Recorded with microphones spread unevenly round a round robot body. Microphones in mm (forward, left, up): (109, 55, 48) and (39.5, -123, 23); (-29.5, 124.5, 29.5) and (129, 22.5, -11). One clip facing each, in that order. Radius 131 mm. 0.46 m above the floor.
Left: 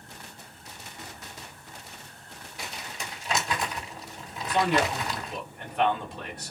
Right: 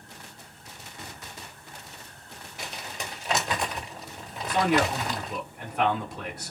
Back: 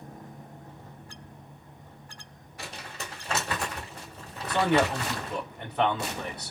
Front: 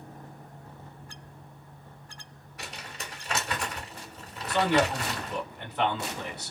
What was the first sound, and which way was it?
Crumpling, 140° right.